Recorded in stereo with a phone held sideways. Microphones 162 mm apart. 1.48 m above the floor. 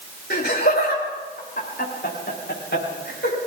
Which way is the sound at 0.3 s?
70° left (ahead or behind).